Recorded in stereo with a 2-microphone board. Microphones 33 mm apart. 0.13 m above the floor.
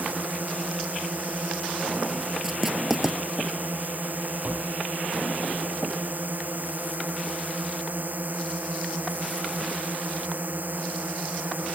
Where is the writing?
15° right (ahead or behind).